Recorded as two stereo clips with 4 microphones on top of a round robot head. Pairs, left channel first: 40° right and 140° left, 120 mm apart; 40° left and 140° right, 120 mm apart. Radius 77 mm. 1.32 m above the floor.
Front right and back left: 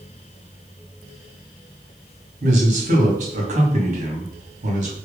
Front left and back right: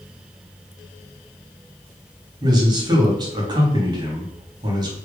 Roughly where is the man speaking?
Behind.